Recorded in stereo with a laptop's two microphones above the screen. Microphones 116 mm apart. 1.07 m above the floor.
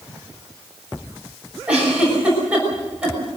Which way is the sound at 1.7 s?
10° right (ahead or behind).